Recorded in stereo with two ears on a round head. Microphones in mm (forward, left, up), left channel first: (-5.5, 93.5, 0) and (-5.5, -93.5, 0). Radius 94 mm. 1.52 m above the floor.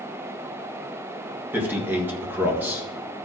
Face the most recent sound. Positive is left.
turn(degrees=-10)  # may be behind; listen again after turning